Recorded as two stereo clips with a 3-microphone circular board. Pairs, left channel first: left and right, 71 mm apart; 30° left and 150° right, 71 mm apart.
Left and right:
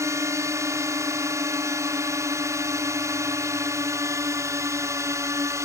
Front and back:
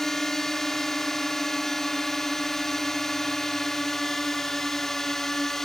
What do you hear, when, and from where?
0.0 s a drone: 55° right